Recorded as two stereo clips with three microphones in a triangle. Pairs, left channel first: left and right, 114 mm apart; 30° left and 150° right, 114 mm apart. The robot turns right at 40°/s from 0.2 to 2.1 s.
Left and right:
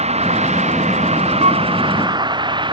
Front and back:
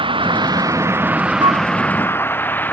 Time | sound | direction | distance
0.0 | a vehicle | 110° right | ?
1.4 | a flute | 105° right | ?